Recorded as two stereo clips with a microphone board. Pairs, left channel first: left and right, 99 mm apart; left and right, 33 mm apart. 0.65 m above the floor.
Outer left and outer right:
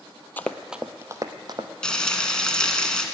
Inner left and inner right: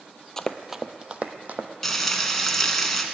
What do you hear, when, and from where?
0.4 s running footsteps: 20° left (ahead or behind), 0.7 m; by 1.7 s 50° right (ahead or behind), 1.2 m
1.8 s frying: 10° left (ahead or behind), 1.4 m